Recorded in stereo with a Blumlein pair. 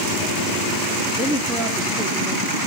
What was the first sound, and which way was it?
A woman speaking, straight ahead.